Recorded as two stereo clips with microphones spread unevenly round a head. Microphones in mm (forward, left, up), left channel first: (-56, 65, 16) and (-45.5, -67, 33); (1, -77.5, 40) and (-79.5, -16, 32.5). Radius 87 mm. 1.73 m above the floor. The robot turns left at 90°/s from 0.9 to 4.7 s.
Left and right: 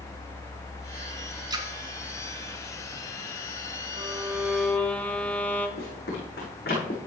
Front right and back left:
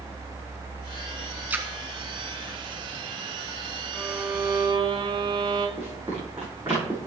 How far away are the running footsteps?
About 6 m.